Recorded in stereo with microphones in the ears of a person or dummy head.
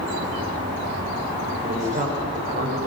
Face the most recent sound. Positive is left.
turn(degrees=-45)  # may be behind; listen again after turning